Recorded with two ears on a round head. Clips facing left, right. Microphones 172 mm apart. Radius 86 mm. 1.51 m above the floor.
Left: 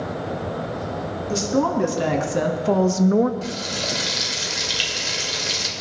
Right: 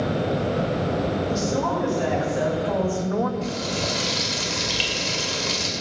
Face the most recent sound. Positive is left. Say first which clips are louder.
# right 2 dB
turn(degrees=15)  # may be behind; listen again after turning